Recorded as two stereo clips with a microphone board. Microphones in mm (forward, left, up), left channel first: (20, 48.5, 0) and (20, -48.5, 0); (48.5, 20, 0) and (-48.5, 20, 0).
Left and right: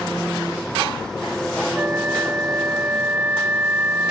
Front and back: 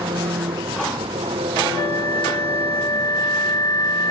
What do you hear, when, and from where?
0.0 s an engine running: 175° left
1.8 s a flute: 30° right